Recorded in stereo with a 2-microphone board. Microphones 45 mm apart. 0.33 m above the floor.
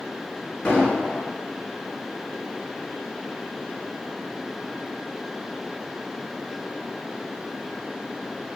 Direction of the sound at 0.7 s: 25° left (ahead or behind).